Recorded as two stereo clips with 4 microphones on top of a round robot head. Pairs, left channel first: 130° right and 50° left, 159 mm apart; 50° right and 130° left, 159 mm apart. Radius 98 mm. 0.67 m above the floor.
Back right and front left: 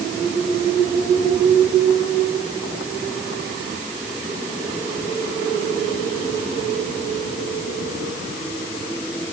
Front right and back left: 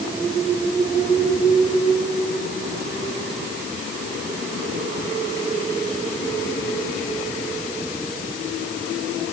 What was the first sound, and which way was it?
Only background noise.